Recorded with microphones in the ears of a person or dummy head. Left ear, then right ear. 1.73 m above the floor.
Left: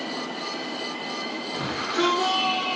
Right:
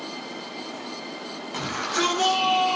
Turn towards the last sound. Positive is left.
turn(degrees=-25)  # may be behind; listen again after turning